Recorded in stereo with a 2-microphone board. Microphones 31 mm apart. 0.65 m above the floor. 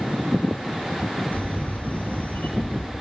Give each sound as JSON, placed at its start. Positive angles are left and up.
{"t": 1.3, "sound": "a camera shutter", "side_deg": 55, "distance_m": 4.5}